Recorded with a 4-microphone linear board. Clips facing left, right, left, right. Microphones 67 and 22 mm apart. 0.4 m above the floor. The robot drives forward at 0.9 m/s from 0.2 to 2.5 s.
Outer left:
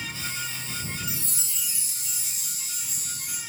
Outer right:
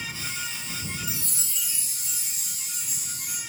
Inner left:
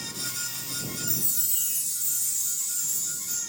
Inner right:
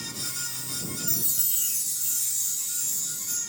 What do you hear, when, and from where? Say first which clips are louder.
1.1 s a chime: even, inner right 1 dB; 55° right (ahead or behind), 4.5 m; by 3.4 s 45° right (ahead or behind), 5.5 m